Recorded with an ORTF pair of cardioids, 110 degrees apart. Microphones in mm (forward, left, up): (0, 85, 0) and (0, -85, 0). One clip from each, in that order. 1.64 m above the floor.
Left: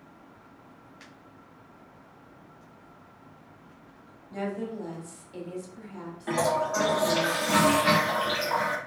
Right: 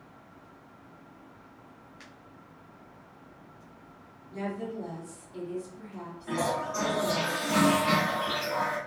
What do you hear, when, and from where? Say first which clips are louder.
4.3 s a woman speaking: left 2 dB; 65° left, 1.4 m
6.3 s a toilet flushing: left 4 dB; 45° left, 0.6 m